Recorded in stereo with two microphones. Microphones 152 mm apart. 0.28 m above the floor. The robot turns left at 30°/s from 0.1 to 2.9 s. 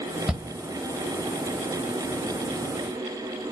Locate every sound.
0.3 s a shout: 5° right (ahead or behind), 1.1 m